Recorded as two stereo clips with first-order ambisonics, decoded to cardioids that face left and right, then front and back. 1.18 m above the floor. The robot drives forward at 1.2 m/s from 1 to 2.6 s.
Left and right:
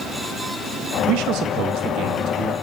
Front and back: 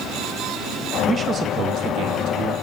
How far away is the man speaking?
About 1.7 m.